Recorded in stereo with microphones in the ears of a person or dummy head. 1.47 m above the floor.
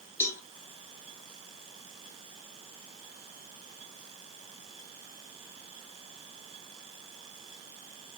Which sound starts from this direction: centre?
A cowbell, at 0.2 s.